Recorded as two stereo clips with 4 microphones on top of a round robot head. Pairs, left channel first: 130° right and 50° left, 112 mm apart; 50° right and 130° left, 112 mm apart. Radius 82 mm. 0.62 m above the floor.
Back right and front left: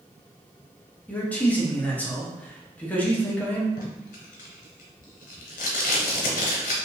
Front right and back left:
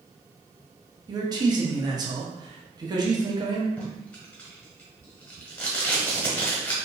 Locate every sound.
1.1 s a man speaking: 160° left, 1.1 m
3.8 s tape being pulled: 130° right, 0.8 m